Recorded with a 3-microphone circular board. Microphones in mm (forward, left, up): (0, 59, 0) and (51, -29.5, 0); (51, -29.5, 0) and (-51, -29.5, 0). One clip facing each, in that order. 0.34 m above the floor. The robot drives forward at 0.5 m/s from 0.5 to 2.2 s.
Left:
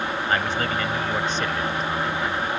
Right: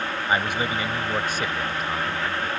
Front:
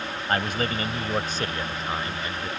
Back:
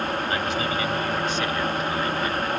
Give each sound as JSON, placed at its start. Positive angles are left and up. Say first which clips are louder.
{"t": 0.3, "sound": "a man speaking", "louder": "right 1 dB, back 1 dB", "azimuth_deg": 15}